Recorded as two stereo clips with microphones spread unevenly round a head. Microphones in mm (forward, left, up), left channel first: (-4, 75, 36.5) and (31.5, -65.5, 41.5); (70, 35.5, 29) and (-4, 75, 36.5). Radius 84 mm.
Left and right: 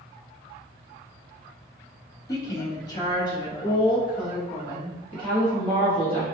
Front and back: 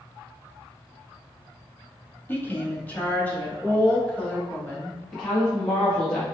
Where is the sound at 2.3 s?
35° left, 1.1 m; by 5.0 s 45° left, 3 m.